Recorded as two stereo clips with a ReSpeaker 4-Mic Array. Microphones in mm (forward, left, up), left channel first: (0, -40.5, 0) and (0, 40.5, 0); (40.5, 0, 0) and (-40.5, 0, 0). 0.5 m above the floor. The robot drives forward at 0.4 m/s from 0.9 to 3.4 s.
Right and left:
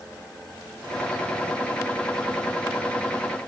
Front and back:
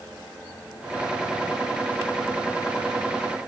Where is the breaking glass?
I don't hear breaking glass.